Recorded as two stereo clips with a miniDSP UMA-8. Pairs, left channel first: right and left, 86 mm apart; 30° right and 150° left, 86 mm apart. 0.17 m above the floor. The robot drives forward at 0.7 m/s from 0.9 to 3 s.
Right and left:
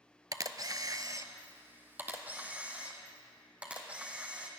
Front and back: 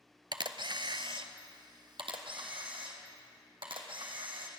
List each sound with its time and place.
0.3 s a camera shutter: 130° left, 0.7 m; by 4.5 s 165° left, 2.0 m